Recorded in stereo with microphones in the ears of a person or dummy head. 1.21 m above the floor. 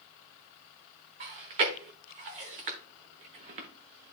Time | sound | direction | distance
1.2 | chewing | 35° right (ahead or behind) | 1.0 m